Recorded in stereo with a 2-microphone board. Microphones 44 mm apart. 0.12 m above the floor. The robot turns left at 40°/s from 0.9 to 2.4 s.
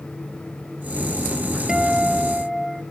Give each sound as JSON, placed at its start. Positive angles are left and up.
{"t": 1.7, "sound": "a guitar", "side_deg": -20, "distance_m": 1.0}